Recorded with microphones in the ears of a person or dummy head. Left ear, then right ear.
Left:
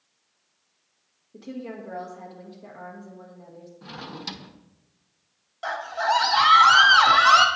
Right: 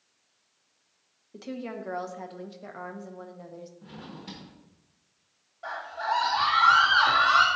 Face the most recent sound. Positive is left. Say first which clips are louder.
# left 6 dB
turn(degrees=80)